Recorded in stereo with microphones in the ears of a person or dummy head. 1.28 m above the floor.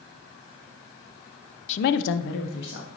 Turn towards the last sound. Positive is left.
turn(degrees=55)  # may be behind; listen again after turning